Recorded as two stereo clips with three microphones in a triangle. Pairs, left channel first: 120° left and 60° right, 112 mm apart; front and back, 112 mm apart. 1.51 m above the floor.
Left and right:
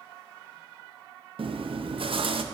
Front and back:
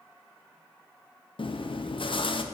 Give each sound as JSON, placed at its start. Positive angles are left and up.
{"t": 1.4, "sound": "chewing", "azimuth_deg": -30, "distance_m": 0.6}